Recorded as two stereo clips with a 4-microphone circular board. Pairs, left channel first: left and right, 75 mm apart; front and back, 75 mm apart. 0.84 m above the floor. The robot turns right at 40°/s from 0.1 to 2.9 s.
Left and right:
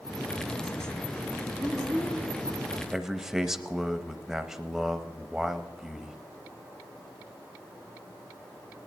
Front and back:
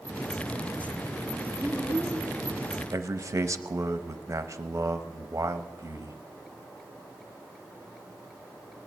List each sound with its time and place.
1.6 s a child speaking: 70° right, 7 m; by 2.2 s 45° right, 7 m
2.9 s a man speaking: 170° right, 0.6 m